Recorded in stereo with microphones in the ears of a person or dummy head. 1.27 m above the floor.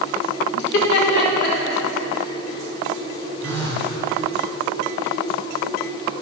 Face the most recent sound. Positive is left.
turn(degrees=20)  # may be behind; listen again after turning